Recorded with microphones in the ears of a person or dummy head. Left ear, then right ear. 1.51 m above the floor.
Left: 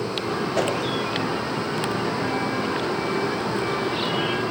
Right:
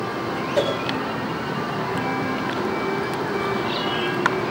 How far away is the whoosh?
About 5 m.